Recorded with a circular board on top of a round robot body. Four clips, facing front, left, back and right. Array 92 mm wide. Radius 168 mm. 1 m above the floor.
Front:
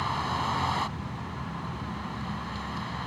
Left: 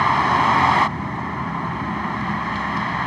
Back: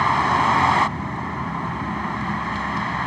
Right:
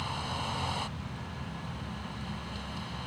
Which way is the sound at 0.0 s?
125° left.